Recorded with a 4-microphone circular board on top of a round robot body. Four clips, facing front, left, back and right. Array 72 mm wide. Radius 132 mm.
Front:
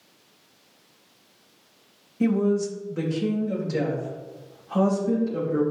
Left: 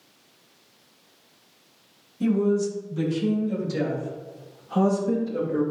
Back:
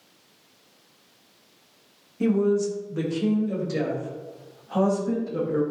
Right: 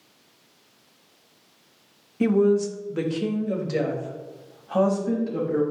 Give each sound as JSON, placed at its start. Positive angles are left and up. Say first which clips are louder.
{"t": 2.2, "sound": "a woman speaking", "louder": "right 3 dB, back 1 dB", "azimuth_deg": -95, "distance_m": 1.7}